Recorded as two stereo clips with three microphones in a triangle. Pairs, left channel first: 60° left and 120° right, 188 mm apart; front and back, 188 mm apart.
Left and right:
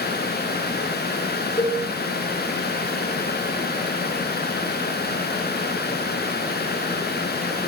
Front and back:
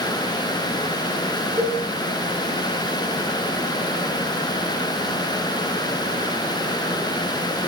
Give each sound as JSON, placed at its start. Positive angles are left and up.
{"t": 1.6, "sound": "a cowbell", "azimuth_deg": 110, "distance_m": 1.3}